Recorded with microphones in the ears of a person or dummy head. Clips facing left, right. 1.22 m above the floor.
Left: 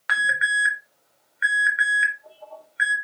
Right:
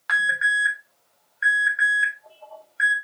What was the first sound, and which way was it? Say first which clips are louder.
An alarm: even; 40° left (ahead or behind).